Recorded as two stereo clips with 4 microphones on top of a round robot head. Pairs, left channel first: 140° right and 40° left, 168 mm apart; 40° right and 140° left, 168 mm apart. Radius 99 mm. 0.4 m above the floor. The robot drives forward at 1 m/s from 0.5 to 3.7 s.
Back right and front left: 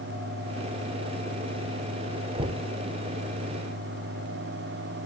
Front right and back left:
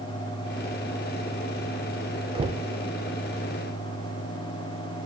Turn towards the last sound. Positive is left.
turn(degrees=155)